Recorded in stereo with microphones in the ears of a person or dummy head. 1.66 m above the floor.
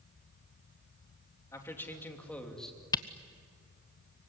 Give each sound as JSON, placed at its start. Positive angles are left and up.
{"t": 1.5, "sound": "a man speaking", "side_deg": 15, "distance_m": 3.0}
{"t": 2.9, "sound": "a camera shutter", "side_deg": 20, "distance_m": 0.6}